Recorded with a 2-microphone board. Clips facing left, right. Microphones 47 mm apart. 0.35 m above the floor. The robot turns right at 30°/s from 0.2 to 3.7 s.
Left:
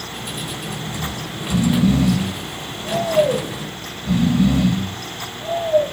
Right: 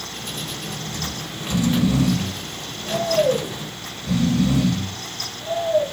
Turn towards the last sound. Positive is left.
turn(degrees=115)